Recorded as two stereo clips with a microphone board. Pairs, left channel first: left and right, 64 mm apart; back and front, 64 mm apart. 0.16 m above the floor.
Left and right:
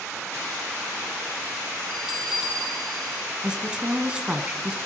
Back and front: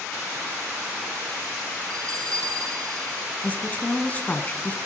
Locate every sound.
1.9 s a bell: straight ahead, 4 m
3.4 s a woman speaking: 150° right, 1.7 m